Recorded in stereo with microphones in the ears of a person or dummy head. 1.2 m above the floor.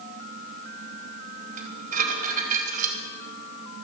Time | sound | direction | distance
1.6 | dishes clattering | 45° right (ahead or behind) | 4 m